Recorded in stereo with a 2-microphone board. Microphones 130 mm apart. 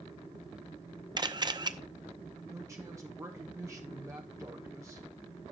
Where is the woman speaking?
25° right (ahead or behind), 1.1 m.